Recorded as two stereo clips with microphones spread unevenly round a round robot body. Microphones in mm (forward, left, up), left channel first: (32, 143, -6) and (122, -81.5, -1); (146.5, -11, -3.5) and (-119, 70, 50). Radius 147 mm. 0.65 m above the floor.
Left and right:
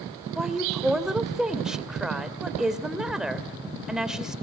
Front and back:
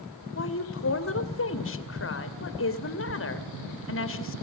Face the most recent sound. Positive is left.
turn(degrees=20)